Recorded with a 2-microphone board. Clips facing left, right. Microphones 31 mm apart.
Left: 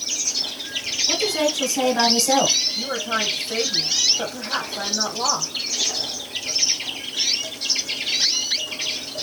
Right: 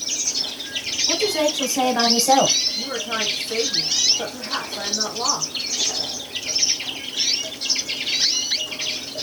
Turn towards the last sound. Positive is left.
turn(degrees=30)  # may be behind; listen again after turning